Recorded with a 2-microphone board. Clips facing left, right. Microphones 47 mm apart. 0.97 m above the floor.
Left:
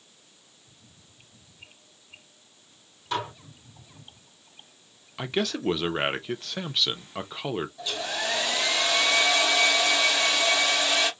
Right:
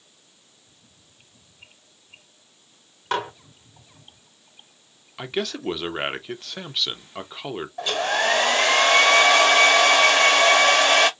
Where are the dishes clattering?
50° right (ahead or behind), 1.7 m.